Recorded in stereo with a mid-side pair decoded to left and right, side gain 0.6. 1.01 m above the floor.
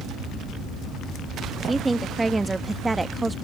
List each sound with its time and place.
1.6 s a woman speaking: 15° right